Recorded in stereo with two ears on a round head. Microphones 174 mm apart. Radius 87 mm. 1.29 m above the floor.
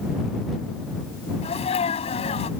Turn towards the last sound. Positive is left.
turn(degrees=30)  # may be behind; listen again after turning